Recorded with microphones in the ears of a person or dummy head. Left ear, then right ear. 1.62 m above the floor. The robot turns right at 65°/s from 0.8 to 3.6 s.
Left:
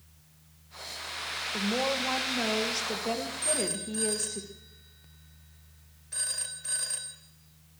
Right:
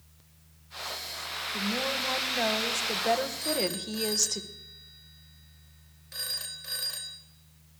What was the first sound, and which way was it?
A woman speaking, 140° left.